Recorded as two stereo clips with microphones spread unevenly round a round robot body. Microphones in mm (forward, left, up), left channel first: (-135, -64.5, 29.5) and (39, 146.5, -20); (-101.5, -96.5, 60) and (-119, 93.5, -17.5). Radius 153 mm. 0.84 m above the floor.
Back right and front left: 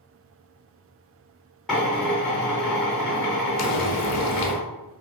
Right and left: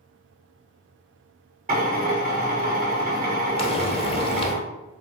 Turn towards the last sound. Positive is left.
turn(degrees=-130)